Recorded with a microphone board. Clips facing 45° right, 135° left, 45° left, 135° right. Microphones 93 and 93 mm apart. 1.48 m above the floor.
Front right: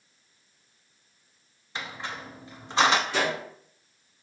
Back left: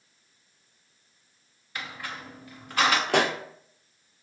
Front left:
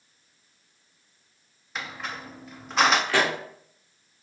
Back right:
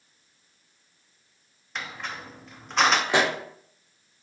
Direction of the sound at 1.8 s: 40° right.